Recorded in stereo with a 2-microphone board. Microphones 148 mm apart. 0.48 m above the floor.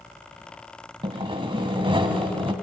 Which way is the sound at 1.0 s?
35° right (ahead or behind).